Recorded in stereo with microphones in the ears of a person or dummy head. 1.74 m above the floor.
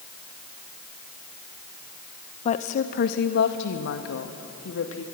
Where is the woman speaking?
35° left (ahead or behind), 1.2 m; by 5.0 s 75° left (ahead or behind), 2.5 m.